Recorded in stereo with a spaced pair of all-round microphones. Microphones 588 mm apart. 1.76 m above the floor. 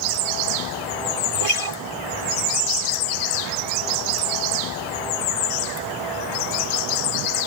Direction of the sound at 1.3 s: 75° left (ahead or behind).